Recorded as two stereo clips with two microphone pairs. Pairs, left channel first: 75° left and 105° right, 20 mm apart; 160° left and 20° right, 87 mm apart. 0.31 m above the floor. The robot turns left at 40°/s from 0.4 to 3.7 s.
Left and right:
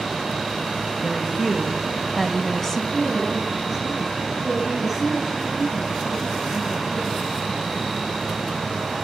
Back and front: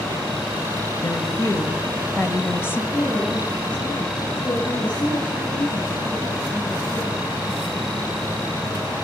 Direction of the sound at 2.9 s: 155° right.